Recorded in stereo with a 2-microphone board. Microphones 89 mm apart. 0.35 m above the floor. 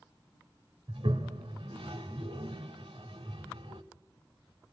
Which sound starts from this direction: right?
A toilet flushing, at 0.9 s.